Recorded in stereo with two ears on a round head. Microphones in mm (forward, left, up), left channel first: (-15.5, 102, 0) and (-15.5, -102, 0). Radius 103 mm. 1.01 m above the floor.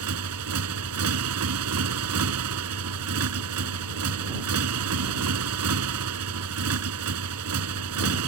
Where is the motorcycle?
80° right.